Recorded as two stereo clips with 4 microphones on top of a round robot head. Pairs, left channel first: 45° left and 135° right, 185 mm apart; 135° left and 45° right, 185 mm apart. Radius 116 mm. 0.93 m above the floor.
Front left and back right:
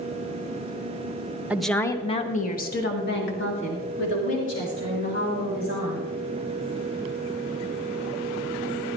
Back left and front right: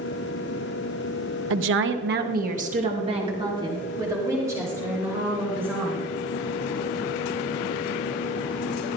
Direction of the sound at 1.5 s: 50° right.